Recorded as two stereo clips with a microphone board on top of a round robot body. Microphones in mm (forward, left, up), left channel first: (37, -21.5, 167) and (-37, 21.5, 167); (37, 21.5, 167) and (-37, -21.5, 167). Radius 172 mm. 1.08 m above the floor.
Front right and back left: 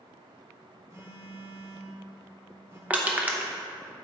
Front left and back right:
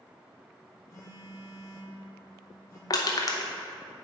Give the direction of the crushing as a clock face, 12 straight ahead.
9 o'clock.